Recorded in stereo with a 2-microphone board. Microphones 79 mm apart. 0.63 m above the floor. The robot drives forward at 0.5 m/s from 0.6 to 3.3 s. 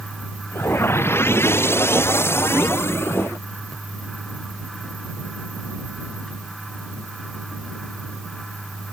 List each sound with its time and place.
Only background noise.